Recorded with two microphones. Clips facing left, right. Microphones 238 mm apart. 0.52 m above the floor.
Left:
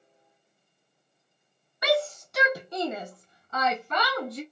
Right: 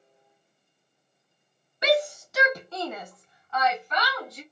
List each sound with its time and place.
1.8 s a shout: 25° right (ahead or behind), 0.8 m; by 4.4 s 60° left (ahead or behind), 1.4 m